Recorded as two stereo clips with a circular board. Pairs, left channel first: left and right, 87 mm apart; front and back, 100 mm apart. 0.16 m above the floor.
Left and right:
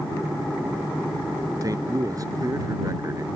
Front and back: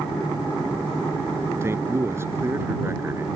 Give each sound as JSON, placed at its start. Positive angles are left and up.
{"t": 1.6, "sound": "a man speaking", "azimuth_deg": -125}